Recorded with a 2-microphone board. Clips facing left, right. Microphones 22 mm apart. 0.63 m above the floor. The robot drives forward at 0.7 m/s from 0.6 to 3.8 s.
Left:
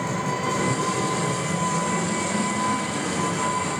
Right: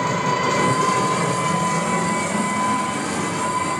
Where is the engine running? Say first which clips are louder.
Right 6 dB; 50° right (ahead or behind), 1.5 m; by 3.8 s 20° right (ahead or behind), 3.5 m.